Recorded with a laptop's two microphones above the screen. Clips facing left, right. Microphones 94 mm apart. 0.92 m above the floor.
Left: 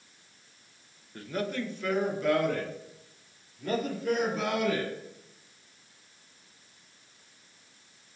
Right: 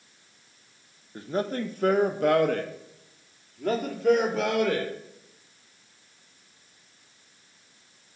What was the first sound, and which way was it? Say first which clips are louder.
A man speaking: right 4 dB; 20° right (ahead or behind).